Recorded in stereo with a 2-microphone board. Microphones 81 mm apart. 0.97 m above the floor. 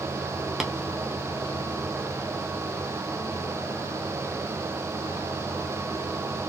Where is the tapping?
5° right (ahead or behind), 0.5 m.